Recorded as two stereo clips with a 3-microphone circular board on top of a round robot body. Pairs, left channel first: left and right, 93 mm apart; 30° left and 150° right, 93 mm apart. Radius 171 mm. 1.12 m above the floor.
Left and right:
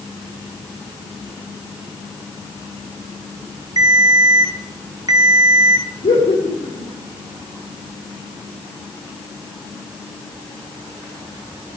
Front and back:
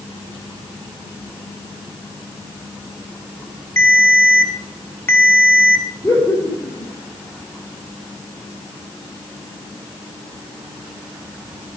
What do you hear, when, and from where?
3.8 s a ringtone: 35° right, 2 m
6.0 s laughter: 110° left, 3.5 m